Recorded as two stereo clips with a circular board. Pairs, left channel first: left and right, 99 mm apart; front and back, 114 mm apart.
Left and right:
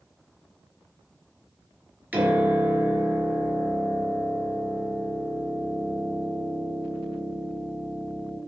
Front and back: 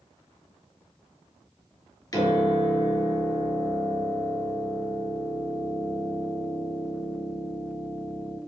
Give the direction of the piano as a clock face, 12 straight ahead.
1 o'clock.